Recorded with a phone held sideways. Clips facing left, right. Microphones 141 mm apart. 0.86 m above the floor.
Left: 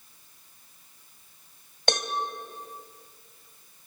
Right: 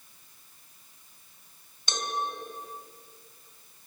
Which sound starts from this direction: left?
A cowbell, at 1.9 s.